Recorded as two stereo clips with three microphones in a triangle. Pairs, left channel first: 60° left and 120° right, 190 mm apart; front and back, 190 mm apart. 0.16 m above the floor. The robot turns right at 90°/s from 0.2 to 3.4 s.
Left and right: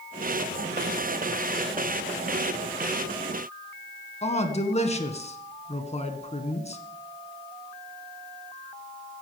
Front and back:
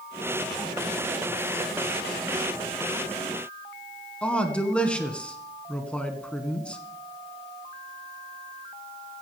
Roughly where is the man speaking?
Left.